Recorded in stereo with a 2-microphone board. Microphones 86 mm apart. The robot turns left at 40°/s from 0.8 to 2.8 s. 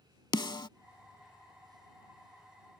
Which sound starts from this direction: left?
A snare drum, at 0.3 s.